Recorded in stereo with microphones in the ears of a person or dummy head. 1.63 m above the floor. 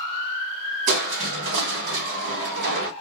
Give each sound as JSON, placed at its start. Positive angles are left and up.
{"t": 0.9, "sound": "crushing", "side_deg": -65, "distance_m": 1.1}